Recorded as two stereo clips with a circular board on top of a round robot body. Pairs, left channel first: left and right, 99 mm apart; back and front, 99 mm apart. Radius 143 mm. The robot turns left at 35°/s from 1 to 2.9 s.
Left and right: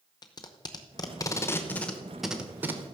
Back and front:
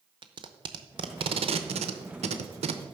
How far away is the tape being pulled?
About 0.7 m.